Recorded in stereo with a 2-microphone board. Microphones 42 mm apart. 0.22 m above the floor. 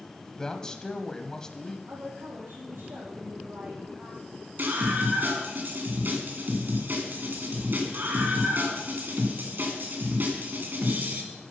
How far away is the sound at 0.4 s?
About 1.0 m.